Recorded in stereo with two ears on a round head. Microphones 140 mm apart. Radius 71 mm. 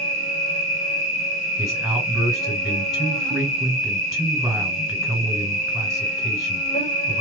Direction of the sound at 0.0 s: 50° left (ahead or behind).